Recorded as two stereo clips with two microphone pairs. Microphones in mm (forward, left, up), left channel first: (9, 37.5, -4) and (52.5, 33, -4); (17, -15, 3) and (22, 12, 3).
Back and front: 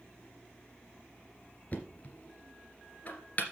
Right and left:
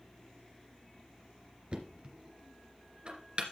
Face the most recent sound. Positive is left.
turn(degrees=125)